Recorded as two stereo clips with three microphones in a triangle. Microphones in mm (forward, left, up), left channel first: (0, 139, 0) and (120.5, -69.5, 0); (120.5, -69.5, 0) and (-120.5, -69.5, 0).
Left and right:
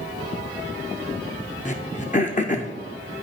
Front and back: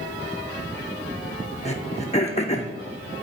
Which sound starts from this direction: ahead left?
Throat clearing, at 1.6 s.